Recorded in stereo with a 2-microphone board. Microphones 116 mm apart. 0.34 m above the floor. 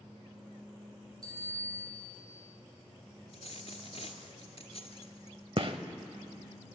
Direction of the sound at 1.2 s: 35° right (ahead or behind).